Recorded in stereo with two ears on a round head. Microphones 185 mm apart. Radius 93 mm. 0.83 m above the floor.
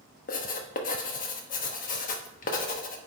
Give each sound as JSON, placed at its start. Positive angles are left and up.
{"t": 0.3, "sound": "writing", "side_deg": 40, "distance_m": 1.1}